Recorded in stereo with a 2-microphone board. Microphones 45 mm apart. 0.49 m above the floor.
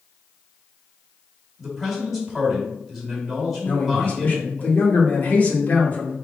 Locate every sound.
1.6 s a man speaking: centre (ahead or behind), 2.0 m
3.6 s a man speaking: 40° left (ahead or behind), 1.4 m